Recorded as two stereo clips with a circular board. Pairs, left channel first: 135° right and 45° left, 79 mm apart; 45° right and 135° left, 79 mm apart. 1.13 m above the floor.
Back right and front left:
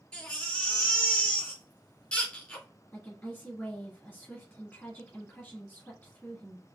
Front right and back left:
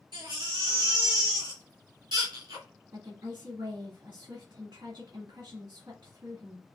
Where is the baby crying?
145° left, 2 m.